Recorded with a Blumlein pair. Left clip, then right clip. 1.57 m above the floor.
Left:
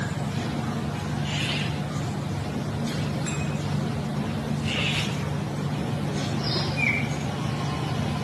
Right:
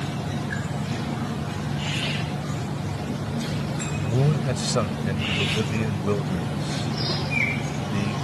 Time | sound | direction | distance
4.0 | a man speaking | 35° right | ?